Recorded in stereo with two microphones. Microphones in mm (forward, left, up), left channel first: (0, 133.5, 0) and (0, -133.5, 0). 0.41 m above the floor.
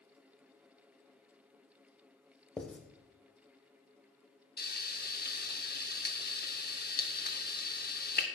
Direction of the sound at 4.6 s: 35° left (ahead or behind).